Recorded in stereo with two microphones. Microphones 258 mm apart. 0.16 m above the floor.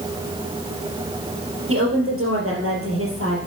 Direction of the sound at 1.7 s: 60° right (ahead or behind).